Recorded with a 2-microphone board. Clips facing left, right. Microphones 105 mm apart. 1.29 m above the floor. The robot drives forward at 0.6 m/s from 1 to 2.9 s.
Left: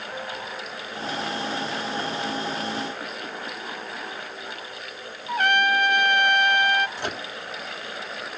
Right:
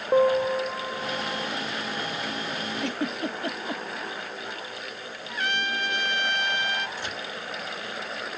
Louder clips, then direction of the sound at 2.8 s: Right 4 dB; 85° right.